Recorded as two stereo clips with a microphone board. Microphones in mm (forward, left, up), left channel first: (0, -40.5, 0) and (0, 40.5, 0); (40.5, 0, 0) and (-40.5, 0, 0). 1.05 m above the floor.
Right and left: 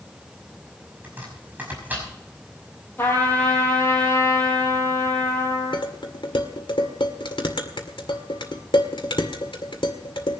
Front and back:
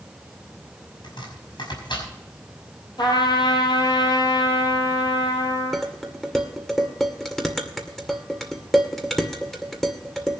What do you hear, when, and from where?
1.0 s chopping: 20° left, 5.5 m
3.0 s a trumpet: 25° right, 5 m
5.7 s dishes clattering: 85° right, 2 m